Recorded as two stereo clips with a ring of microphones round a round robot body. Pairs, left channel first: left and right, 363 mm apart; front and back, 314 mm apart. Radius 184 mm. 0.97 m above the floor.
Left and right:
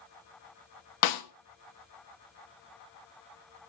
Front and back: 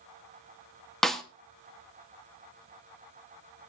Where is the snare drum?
90° left, 1.3 m.